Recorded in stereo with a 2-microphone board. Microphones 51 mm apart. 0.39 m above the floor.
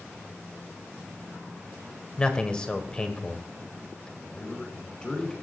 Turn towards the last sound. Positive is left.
turn(degrees=15)  # may be behind; listen again after turning